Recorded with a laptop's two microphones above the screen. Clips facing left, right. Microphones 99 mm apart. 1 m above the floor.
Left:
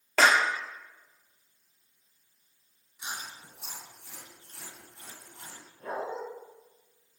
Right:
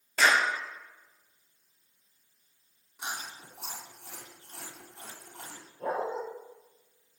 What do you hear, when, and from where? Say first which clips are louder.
0.2 s a clap: left 2 dB; 80° left, 2 m
3.0 s chewing: right 2 dB; 60° right (ahead or behind), 3 m
5.8 s a dog barking: right 3 dB; 80° right, 7 m